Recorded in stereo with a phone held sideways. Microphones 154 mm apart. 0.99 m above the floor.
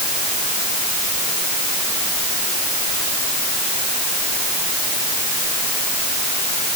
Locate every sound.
Only background noise.